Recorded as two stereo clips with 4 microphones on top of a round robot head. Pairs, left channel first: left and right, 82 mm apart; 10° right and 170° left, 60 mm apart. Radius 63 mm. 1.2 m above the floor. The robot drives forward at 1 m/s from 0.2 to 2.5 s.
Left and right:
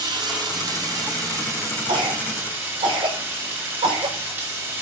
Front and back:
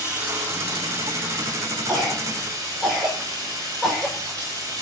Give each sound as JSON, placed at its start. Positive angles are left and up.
{"t": 0.0, "sound": "running water", "azimuth_deg": -125, "distance_m": 2.0}
{"t": 1.9, "sound": "a cough", "azimuth_deg": -105, "distance_m": 6.5}